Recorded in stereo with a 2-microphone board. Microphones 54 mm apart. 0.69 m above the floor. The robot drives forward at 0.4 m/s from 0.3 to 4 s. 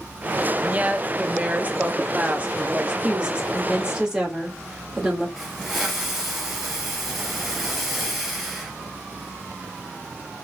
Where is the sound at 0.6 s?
25° right (ahead or behind), 0.7 m; by 2.9 s 20° right (ahead or behind), 0.9 m.